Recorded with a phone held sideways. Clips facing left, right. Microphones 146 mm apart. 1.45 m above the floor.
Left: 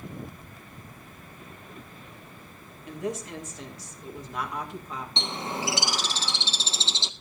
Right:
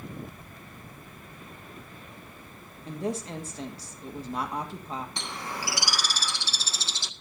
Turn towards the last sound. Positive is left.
turn(degrees=25)  # may be behind; listen again after turning